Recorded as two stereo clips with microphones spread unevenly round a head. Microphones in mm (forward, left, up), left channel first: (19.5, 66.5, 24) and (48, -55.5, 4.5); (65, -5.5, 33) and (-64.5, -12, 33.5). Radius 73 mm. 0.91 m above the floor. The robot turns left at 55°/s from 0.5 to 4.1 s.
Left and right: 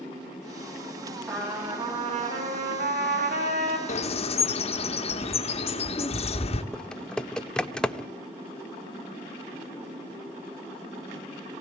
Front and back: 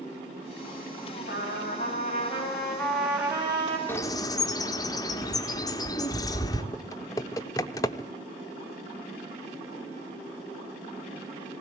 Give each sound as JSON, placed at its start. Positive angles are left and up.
{"t": 1.3, "sound": "a trumpet", "azimuth_deg": 10, "distance_m": 6.5}
{"t": 3.9, "sound": "a bird", "azimuth_deg": 75, "distance_m": 1.2}
{"t": 6.7, "sound": "typing on a keyboard", "azimuth_deg": 45, "distance_m": 0.5}